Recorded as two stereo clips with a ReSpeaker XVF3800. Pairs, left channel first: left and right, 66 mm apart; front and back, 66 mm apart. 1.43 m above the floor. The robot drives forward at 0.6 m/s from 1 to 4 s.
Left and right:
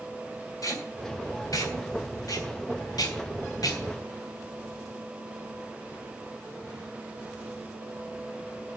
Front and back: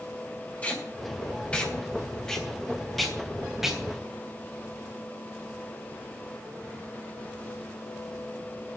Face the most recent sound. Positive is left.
turn(degrees=100)